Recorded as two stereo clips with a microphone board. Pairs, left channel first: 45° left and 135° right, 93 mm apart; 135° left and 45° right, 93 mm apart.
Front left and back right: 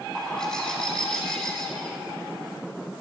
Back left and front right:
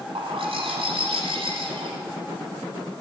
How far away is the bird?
About 1.4 m.